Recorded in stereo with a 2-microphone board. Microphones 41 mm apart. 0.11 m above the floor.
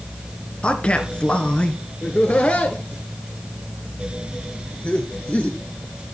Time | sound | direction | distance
0.6 | a man speaking | 25° left (ahead or behind) | 1.3 m
2.0 | laughter | 30° left (ahead or behind) | 1.2 m